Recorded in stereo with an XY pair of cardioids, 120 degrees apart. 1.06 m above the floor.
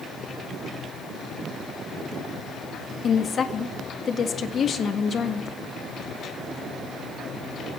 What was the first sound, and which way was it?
A woman speaking, 40° left.